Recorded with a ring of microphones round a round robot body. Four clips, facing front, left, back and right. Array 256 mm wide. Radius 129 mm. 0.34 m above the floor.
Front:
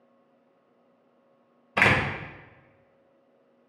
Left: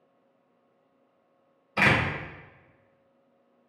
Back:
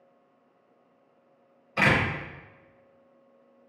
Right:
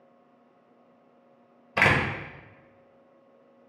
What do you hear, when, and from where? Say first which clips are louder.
1.8 s a door slam: right 1 dB, front 1 dB; 40° right, 0.9 m